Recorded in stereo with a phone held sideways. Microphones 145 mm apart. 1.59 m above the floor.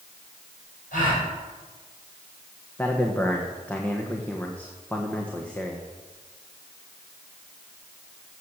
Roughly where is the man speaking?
Centre.